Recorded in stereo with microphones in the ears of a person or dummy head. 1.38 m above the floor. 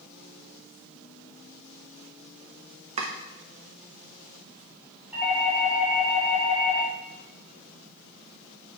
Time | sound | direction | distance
3.0 | chopping | 40° right (ahead or behind) | 1.0 m
5.1 | a doorbell | 10° right (ahead or behind) | 2.5 m